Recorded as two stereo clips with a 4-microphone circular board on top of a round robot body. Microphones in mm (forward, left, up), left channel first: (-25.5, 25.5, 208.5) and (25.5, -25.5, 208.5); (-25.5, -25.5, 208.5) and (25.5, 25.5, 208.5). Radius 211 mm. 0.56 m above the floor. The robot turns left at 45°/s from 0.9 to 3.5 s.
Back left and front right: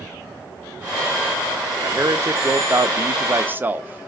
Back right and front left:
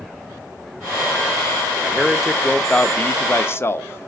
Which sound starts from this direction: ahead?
A man speaking, at 1.8 s.